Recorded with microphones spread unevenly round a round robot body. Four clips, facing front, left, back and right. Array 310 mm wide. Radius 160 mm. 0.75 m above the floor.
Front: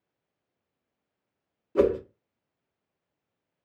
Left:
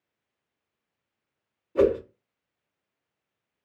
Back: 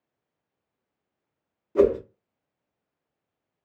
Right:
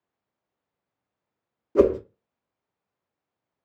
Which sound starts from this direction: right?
A whoosh, at 1.8 s.